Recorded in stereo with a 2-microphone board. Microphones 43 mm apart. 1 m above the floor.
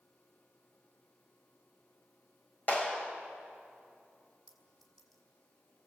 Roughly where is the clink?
Centre.